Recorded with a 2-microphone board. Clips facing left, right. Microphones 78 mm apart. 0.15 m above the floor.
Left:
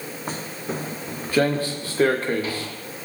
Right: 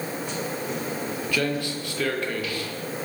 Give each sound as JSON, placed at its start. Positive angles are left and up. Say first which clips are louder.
{"t": 0.3, "sound": "footsteps", "louder": "right 1 dB", "side_deg": 40, "distance_m": 3.0}